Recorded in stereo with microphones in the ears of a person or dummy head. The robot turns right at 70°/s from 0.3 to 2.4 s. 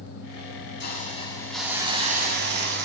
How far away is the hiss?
About 2.0 m.